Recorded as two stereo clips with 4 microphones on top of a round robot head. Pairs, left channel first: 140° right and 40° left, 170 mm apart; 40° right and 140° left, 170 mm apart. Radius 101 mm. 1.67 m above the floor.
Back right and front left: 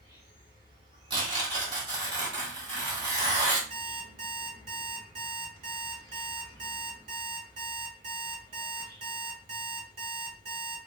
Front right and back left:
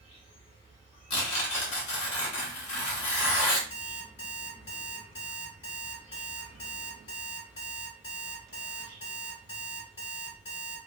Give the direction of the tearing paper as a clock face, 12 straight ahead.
1 o'clock.